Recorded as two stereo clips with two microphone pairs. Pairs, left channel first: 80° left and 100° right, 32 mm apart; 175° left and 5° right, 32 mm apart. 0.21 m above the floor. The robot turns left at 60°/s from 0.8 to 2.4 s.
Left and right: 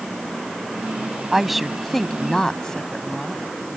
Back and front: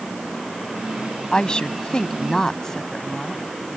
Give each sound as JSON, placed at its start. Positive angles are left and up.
{"t": 1.3, "sound": "a woman speaking", "azimuth_deg": -170}